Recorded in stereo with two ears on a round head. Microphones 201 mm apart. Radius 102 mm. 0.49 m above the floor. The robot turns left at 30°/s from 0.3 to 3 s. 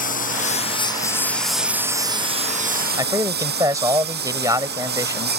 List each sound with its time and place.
0.0 s a lawn mower: 35° left; by 5.4 s 45° right
3.0 s a man speaking: 15° right (ahead or behind)